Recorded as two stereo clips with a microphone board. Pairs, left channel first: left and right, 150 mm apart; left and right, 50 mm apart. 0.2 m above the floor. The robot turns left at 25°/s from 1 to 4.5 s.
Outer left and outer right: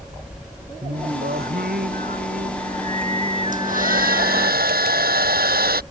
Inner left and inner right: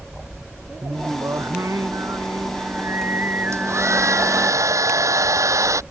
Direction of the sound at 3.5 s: 60° right (ahead or behind).